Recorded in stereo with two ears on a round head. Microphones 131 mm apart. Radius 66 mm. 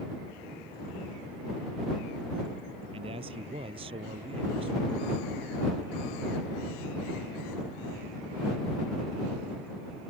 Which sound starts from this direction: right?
A man speaking, at 2.9 s.